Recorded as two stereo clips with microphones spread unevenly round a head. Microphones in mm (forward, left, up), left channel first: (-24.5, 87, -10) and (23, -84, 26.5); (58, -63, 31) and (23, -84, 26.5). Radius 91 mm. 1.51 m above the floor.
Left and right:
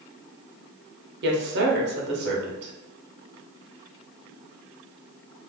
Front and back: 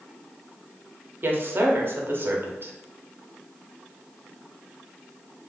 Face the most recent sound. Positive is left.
turn(degrees=-110)